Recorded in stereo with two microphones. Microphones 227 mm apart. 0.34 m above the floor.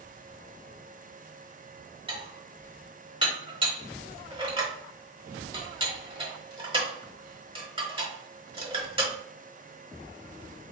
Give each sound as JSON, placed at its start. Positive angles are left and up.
{"t": 2.1, "sound": "dishes clattering", "side_deg": -25, "distance_m": 1.1}